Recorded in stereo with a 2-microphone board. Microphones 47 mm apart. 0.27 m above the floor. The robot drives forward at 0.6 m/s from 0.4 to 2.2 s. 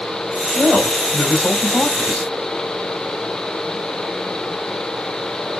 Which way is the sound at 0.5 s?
35° left (ahead or behind).